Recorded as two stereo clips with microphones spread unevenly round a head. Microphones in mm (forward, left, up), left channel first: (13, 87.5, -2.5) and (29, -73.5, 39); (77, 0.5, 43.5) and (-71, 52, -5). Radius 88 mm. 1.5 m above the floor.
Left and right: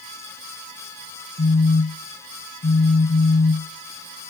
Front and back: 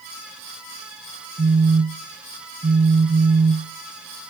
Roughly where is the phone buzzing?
Left.